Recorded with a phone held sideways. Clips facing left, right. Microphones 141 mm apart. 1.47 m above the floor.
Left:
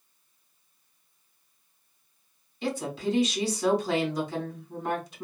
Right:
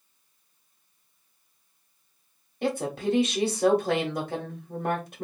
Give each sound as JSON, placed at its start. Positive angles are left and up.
{"t": 2.6, "sound": "a woman speaking", "side_deg": -55, "distance_m": 1.3}